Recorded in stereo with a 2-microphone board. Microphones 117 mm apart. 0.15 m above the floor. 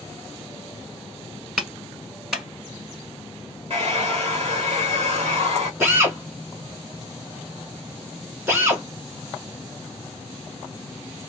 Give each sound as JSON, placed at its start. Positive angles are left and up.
{"t": 1.6, "sound": "a clap", "side_deg": -5, "distance_m": 1.8}
{"t": 3.7, "sound": "a hair dryer", "side_deg": -50, "distance_m": 2.0}
{"t": 5.8, "sound": "a drill", "side_deg": -20, "distance_m": 2.5}